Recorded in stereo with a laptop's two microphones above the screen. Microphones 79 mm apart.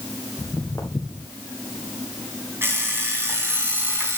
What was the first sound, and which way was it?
Footsteps, 40° left (ahead or behind).